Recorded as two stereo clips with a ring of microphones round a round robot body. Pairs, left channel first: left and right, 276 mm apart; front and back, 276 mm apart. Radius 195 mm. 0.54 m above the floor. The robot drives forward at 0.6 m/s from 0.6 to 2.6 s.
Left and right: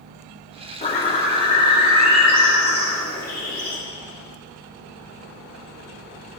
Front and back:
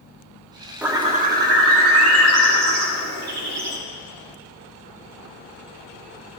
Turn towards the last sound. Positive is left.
turn(degrees=170)